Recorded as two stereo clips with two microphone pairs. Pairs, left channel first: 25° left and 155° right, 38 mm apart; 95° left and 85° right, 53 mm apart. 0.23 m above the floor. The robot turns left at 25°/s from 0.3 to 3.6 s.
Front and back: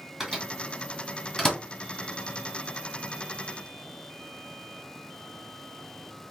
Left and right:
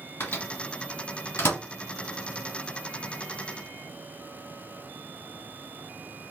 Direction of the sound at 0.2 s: 125° left.